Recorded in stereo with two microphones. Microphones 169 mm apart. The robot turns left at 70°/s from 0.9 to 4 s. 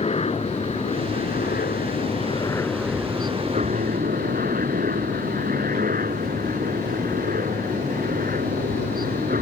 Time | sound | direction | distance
0.0 | a helicopter | 135° left | ?